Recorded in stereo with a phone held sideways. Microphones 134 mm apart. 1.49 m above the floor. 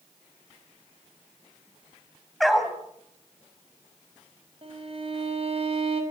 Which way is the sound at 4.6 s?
45° right (ahead or behind).